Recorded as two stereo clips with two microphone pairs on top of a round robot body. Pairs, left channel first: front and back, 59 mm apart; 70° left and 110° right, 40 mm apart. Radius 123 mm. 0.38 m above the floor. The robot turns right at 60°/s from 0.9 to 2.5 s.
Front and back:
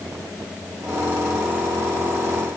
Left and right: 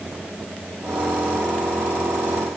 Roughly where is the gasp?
No gasp in this recording.